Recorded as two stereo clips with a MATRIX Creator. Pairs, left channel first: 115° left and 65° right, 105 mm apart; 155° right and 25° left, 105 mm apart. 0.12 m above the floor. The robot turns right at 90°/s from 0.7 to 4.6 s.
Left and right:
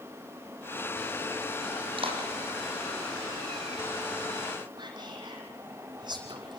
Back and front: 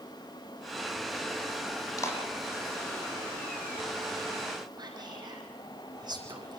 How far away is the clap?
About 5.5 m.